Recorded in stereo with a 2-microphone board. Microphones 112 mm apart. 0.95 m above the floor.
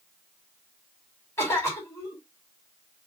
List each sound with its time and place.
1.4 s a cough: 25° left (ahead or behind), 2.5 m